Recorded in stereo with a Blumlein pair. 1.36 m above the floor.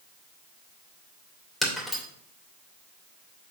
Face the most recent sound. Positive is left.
turn(degrees=0)